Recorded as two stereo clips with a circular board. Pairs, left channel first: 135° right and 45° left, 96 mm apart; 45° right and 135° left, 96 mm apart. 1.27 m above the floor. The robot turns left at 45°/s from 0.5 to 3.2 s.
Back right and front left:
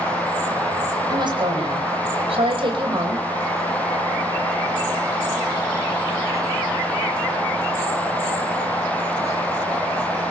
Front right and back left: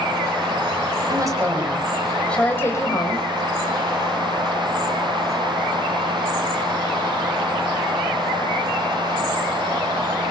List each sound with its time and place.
1.1 s a woman speaking: 90° left, 6.5 m; by 3.2 s 5° right, 6.5 m